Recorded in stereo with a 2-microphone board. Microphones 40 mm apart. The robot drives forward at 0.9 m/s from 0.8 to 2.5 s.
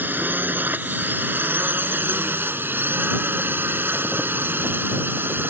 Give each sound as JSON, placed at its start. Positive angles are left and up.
{"t": 0.0, "sound": "a drone", "side_deg": -55}